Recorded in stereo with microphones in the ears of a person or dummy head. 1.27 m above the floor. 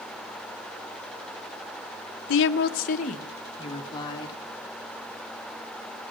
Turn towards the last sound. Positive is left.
turn(degrees=30)  # may be behind; listen again after turning